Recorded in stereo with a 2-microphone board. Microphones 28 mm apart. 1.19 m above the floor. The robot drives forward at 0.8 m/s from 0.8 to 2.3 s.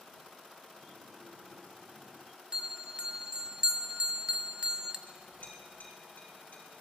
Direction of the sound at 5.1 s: 65° left (ahead or behind).